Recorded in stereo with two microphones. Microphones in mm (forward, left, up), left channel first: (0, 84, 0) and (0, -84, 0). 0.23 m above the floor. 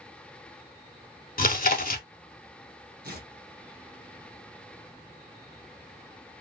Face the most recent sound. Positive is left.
turn(degrees=-65)  # may be behind; listen again after turning